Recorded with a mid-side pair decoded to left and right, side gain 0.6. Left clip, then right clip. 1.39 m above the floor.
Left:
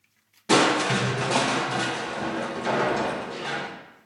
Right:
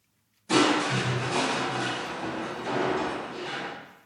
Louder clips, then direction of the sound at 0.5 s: Left 3 dB; 60° left.